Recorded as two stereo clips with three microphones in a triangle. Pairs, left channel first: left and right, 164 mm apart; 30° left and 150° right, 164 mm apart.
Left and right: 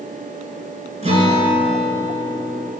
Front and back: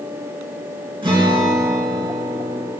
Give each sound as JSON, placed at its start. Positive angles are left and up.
{"t": 1.0, "sound": "a guitar", "azimuth_deg": -105, "distance_m": 2.0}